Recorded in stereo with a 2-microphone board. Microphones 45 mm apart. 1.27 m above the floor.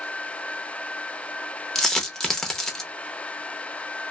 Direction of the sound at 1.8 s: 10° left (ahead or behind).